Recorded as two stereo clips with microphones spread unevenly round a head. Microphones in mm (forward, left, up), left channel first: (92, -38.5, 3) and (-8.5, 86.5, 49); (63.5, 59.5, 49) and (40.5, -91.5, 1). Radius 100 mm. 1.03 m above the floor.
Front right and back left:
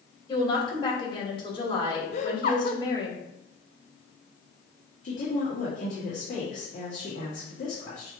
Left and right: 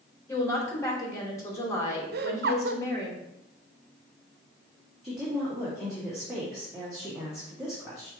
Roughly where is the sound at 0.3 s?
Ahead.